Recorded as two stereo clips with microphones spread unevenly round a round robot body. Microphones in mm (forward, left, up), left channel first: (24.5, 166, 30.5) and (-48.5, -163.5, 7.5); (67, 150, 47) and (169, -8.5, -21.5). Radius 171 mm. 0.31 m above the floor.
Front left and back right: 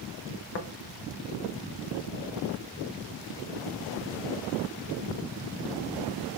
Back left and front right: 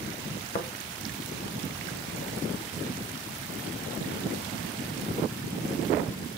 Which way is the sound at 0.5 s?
75° left.